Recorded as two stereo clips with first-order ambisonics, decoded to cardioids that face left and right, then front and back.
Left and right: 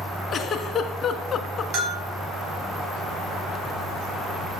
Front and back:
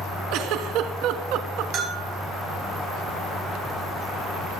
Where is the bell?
130° right, 3.5 m.